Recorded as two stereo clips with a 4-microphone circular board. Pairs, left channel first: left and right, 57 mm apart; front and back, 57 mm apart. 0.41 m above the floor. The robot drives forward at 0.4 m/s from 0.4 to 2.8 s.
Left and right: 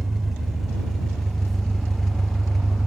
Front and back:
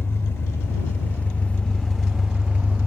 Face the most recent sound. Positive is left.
turn(degrees=170)